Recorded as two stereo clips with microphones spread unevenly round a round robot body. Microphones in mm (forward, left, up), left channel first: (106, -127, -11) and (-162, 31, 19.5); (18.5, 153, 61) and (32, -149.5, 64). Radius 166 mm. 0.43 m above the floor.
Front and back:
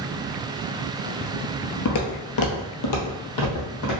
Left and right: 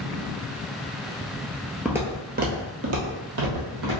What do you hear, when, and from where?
1.9 s footsteps: straight ahead, 0.6 m; by 4.0 s 60° right, 1.4 m